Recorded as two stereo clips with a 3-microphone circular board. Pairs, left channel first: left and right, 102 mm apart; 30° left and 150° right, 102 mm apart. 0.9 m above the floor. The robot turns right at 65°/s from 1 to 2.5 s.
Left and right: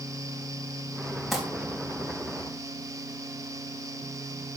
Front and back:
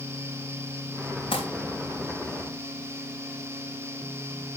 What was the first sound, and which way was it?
Crumpling, straight ahead.